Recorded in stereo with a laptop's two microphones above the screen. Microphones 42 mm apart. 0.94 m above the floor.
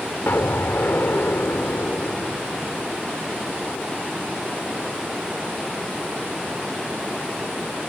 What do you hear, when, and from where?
0.3 s an explosion: 75° left (ahead or behind)